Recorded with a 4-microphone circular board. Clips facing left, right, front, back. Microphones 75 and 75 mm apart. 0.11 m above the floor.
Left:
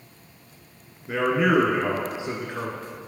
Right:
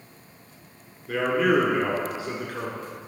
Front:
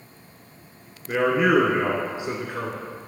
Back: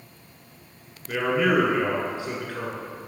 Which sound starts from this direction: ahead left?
A man speaking, at 1.1 s.